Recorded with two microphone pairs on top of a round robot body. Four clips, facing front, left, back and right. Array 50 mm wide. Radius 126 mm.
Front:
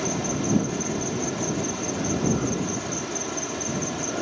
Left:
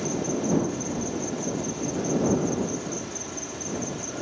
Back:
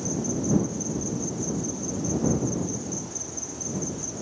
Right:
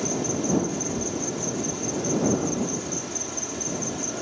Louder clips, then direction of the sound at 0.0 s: Even, front 2 dB; straight ahead.